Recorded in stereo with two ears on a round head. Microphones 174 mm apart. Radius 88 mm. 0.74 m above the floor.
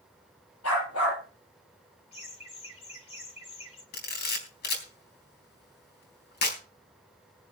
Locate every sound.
0.6 s a dog barking: 80° left, 8.5 m
2.1 s laughter: 30° left (ahead or behind), 6.5 m
3.9 s a camera shutter: 55° left (ahead or behind), 3.5 m